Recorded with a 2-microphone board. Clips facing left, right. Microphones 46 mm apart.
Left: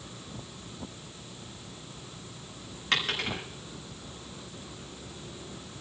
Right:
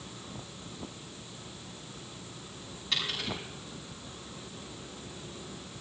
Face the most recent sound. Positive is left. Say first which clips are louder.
# left 5 dB
turn(degrees=55)  # may be behind; listen again after turning